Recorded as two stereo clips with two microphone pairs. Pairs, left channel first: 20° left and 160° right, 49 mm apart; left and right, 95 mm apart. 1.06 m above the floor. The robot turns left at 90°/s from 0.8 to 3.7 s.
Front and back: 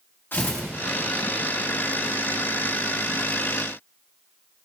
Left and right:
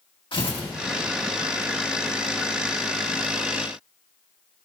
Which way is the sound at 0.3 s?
70° left.